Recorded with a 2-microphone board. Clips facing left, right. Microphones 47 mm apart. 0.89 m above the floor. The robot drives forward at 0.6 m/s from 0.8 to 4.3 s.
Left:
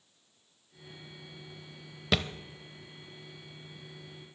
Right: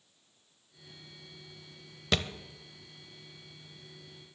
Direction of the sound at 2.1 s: 5° left (ahead or behind).